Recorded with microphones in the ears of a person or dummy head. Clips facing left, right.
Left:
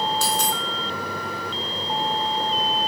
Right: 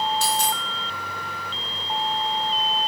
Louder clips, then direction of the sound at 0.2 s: Even; 70° left (ahead or behind).